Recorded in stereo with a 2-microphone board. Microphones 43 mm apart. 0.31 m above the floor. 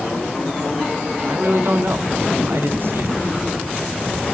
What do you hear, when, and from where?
1.3 s a man speaking: 60° right (ahead or behind), 2.5 m